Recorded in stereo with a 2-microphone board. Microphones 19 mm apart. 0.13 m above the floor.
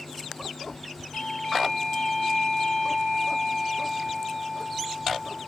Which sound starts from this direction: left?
A doorbell, at 1.1 s.